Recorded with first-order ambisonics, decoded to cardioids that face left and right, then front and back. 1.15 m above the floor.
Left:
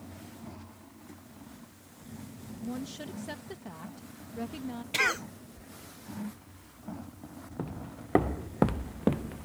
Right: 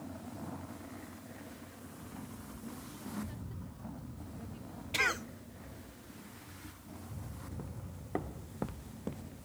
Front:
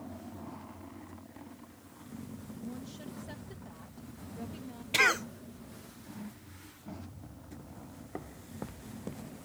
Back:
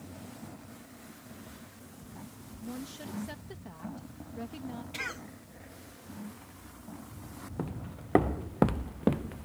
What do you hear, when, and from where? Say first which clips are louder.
2.6 s a woman speaking: left 11 dB, back 5 dB; 105° left
4.9 s a cough: left 4 dB, front 13 dB; 20° left
7.6 s footsteps: left 8 dB, back 9 dB; 145° left; by 9.5 s 135° left